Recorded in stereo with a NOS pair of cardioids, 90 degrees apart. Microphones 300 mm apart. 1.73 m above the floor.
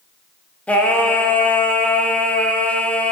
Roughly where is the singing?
Ahead.